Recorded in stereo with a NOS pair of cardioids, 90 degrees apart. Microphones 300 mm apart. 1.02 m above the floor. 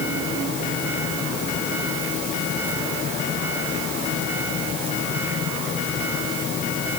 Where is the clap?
I don't hear a clap.